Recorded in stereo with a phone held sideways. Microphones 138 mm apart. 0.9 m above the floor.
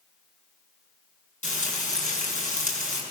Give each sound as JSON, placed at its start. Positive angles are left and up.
{"t": 1.4, "sound": "frying", "side_deg": 60, "distance_m": 5.5}